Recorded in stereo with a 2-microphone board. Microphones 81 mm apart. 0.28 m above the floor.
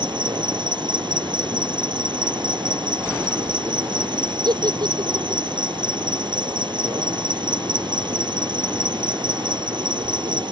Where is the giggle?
65° right (ahead or behind).